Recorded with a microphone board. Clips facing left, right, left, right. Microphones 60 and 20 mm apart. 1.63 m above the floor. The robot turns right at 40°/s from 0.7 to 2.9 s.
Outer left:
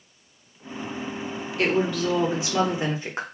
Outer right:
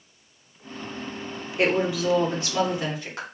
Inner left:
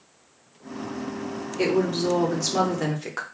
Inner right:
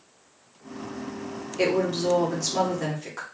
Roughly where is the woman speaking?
Ahead right.